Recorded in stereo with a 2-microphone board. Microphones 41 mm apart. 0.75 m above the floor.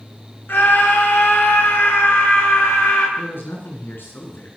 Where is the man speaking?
70° left (ahead or behind), 10 m.